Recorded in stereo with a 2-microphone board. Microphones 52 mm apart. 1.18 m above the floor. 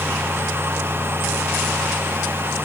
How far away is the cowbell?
I don't hear a cowbell.